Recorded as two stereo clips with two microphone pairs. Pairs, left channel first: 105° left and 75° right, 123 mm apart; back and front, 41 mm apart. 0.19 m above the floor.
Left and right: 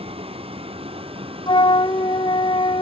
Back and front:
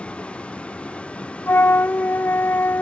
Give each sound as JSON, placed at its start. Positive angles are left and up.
{"t": 0.0, "sound": "a vehicle", "azimuth_deg": -115}
{"t": 1.5, "sound": "a flute", "azimuth_deg": 155}